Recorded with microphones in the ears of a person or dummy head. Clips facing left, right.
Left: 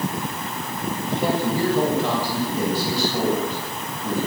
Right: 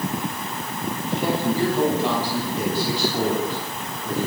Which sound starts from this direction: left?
A man speaking, at 1.1 s.